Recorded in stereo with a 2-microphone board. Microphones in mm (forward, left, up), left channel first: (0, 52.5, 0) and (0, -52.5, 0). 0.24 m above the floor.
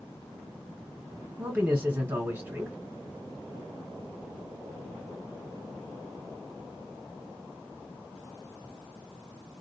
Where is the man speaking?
20° right (ahead or behind), 2.0 m.